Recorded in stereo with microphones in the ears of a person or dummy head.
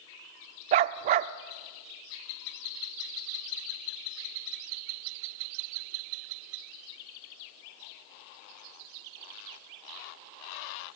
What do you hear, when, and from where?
0.7 s a dog barking: 40° right (ahead or behind), 0.8 m